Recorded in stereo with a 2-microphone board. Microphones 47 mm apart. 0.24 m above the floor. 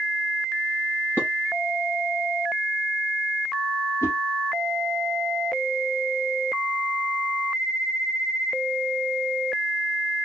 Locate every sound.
1.2 s dishes clattering: 55° left (ahead or behind), 3 m
4.0 s a whoosh: 65° left (ahead or behind), 1.7 m